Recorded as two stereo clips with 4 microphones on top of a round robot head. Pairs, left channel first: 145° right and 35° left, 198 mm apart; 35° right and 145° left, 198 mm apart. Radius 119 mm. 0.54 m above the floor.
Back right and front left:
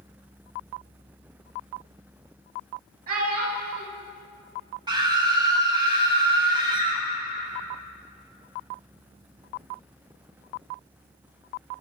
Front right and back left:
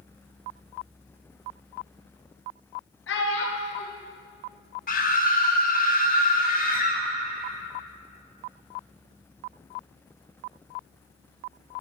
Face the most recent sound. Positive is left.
turn(degrees=-25)